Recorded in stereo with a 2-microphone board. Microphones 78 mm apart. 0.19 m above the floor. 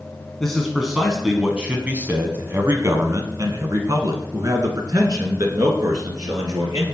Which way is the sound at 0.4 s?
5° left (ahead or behind).